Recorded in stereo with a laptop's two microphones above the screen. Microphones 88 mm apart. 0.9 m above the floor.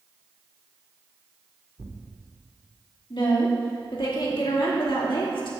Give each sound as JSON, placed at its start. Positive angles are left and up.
{"t": 1.8, "sound": "tearing paper", "side_deg": -40, "distance_m": 1.3}
{"t": 3.1, "sound": "a woman speaking", "side_deg": 75, "distance_m": 2.0}